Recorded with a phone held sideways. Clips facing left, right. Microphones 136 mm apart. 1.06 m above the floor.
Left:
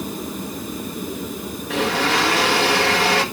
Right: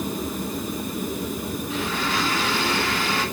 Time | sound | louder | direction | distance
1.7 | a blender | left 8 dB | 70° left (ahead or behind) | 1.8 m